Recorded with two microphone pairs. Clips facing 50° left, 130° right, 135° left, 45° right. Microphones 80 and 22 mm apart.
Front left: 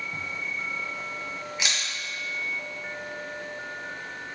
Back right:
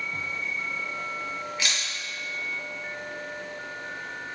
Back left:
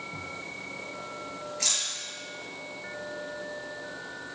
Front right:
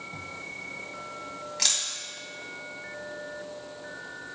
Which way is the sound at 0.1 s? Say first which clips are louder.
Back right 1 dB, even; 20° right.